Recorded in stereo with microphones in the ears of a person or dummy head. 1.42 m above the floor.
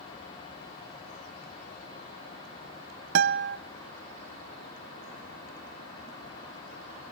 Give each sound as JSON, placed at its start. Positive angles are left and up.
{"t": 3.1, "sound": "a guitar", "side_deg": -55, "distance_m": 0.5}